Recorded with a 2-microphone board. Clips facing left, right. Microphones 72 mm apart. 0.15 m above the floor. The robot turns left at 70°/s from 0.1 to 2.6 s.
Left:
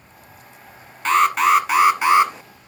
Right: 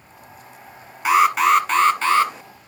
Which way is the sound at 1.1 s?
10° right (ahead or behind).